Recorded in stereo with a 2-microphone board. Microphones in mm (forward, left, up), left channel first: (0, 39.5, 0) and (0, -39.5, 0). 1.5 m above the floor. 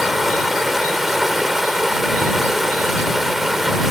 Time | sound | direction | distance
0.0 | running water | 5° right (ahead or behind) | ?